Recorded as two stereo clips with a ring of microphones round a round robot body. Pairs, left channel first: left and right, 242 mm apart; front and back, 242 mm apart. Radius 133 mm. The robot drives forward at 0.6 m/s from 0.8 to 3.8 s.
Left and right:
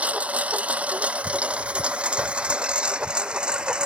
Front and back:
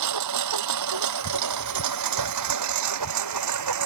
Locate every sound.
0.0 s a lawn mower: 175° right